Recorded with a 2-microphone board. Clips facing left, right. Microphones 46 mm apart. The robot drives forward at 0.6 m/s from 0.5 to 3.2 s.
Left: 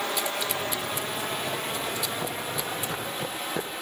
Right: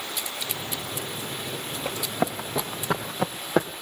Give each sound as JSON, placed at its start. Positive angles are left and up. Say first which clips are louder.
{"t": 0.0, "sound": "running water", "louder": "left 5 dB", "side_deg": 55, "distance_m": 6.0}
{"t": 1.9, "sound": "running footsteps", "louder": "right 3 dB", "side_deg": -80, "distance_m": 5.5}